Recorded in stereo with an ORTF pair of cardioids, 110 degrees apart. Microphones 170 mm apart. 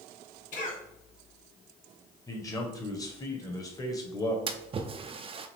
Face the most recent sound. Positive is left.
turn(degrees=-35)